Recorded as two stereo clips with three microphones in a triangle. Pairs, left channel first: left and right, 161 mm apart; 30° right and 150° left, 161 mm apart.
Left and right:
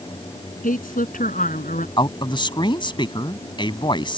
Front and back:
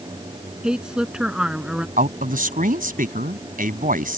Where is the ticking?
No ticking in this recording.